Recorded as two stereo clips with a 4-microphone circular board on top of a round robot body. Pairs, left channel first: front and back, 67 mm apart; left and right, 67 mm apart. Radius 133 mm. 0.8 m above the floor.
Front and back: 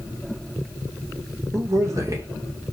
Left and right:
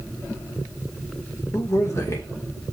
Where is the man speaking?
140° left, 2.5 m.